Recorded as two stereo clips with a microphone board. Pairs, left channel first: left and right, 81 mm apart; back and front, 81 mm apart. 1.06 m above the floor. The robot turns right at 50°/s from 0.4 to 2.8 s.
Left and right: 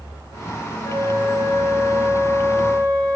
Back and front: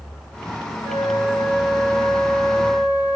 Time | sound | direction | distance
0.8 | a flute | 50° left | 0.6 m